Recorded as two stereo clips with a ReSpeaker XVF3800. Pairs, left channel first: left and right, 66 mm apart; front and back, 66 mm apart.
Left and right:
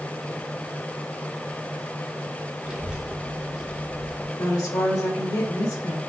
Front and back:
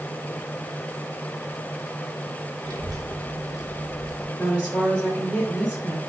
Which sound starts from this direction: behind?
A child speaking, at 2.6 s.